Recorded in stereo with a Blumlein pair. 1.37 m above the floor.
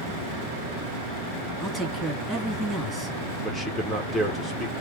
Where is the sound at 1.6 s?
Straight ahead, 2.5 m.